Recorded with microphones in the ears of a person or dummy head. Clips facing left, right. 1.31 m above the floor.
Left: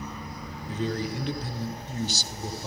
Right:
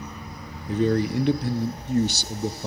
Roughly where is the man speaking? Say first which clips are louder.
Right 8 dB; right.